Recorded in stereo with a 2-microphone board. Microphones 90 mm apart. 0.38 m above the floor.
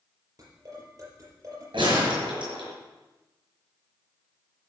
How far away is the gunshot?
About 5 m.